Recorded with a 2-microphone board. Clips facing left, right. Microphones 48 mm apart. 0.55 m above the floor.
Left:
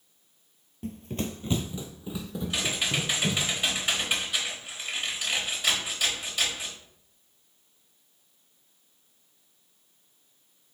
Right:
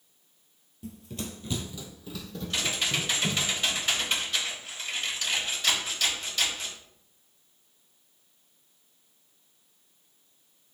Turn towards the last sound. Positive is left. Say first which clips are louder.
# even
turn(degrees=10)  # may be behind; listen again after turning